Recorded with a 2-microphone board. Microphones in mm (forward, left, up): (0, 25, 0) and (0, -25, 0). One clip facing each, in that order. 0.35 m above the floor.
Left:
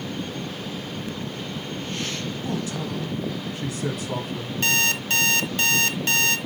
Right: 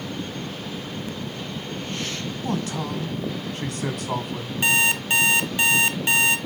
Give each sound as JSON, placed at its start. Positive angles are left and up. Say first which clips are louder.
{"t": 2.4, "sound": "a man speaking", "louder": "right 3 dB", "side_deg": -65, "distance_m": 2.0}
{"t": 4.6, "sound": "an alarm clock", "louder": "right 2 dB", "side_deg": -15, "distance_m": 1.1}